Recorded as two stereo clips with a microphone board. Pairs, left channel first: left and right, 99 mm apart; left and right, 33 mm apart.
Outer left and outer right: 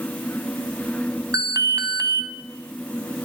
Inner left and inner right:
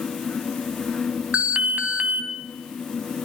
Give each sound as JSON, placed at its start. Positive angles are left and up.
{"t": 1.3, "sound": "an alarm", "side_deg": -40, "distance_m": 1.0}